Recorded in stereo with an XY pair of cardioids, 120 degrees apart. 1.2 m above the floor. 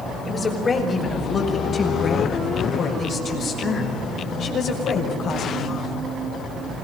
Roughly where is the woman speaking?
Ahead left.